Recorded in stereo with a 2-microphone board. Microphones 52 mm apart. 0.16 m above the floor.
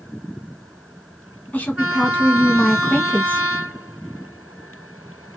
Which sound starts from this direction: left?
A woman speaking, at 1.5 s.